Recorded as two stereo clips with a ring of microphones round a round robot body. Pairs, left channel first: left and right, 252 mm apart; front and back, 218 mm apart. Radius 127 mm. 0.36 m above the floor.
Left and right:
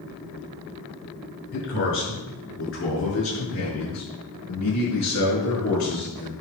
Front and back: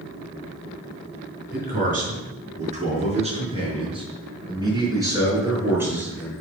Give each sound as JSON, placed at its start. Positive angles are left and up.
{"t": 1.5, "sound": "a man speaking", "azimuth_deg": 135, "distance_m": 5.0}